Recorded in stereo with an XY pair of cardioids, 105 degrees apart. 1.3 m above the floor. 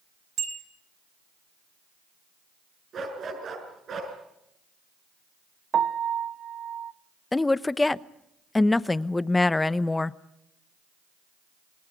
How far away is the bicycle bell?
About 9.5 m.